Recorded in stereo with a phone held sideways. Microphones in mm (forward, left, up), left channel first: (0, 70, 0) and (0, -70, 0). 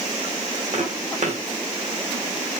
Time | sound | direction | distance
0.7 | footsteps | 55° right (ahead or behind) | 4.5 m